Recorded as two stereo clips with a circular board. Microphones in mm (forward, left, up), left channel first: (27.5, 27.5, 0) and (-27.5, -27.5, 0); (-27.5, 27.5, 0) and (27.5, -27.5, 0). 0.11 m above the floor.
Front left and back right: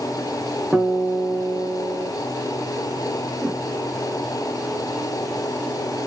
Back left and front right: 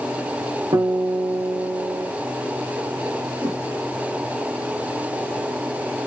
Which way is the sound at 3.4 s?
65° right.